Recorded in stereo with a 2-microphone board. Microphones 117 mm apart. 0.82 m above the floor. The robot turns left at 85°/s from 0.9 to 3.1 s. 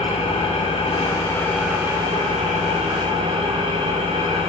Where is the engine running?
60° left, 3.5 m; by 4.5 s 130° right, 3.5 m.